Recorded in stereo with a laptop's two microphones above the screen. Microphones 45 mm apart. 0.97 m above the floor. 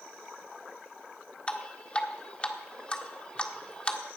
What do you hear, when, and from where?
1.5 s dripping: 25° left (ahead or behind), 1.5 m